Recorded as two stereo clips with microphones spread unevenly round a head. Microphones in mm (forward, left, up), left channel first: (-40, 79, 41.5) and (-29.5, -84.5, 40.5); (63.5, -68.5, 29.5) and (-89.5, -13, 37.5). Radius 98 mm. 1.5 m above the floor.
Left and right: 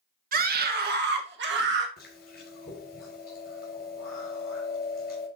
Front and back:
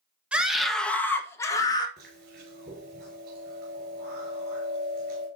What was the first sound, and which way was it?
A scream, 115° right.